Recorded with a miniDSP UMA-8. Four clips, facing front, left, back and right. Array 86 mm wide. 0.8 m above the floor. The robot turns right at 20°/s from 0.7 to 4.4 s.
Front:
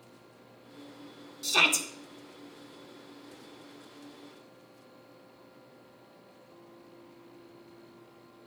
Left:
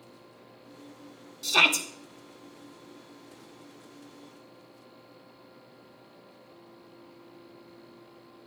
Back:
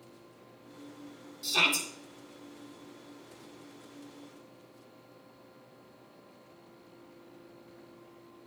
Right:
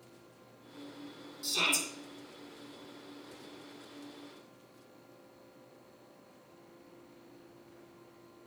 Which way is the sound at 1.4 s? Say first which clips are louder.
Left 9 dB, front 2 dB; 65° left.